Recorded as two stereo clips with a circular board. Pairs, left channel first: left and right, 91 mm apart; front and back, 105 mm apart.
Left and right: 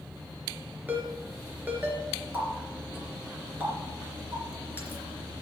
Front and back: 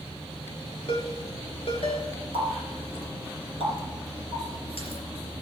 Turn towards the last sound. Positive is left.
turn(degrees=-20)